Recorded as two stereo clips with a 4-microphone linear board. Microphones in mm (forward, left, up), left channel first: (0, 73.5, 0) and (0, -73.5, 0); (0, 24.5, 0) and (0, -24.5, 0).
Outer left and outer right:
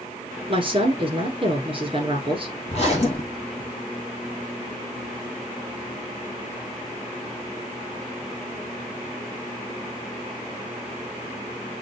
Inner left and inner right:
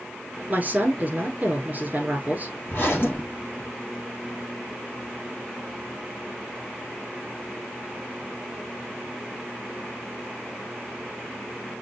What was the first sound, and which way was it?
A woman speaking, 35° right (ahead or behind).